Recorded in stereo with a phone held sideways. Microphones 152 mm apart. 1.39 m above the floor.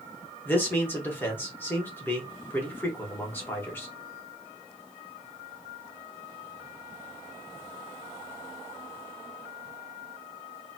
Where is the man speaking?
15° left (ahead or behind), 1.1 m.